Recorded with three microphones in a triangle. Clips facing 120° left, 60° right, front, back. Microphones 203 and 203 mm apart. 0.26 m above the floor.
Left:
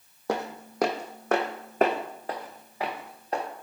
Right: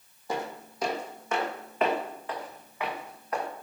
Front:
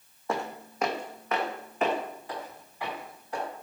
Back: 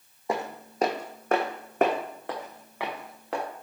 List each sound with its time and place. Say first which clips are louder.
0.3 s footsteps: left 3 dB, back 2 dB; 110° left, 0.8 m; by 3.4 s straight behind, 1.7 m